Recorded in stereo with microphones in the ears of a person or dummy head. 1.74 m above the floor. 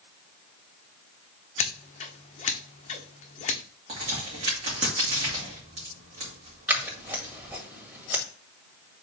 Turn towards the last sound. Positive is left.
turn(degrees=-15)  # may be behind; listen again after turning